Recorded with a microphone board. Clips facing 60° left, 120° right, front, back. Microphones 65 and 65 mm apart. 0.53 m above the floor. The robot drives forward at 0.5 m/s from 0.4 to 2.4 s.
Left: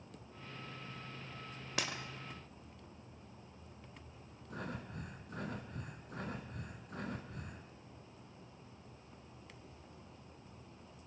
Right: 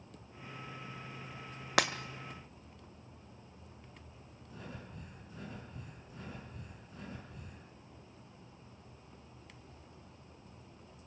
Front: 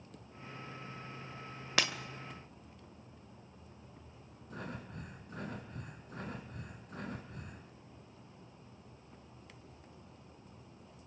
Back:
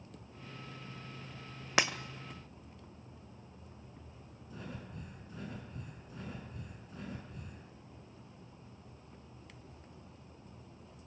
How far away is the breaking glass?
About 1.3 m.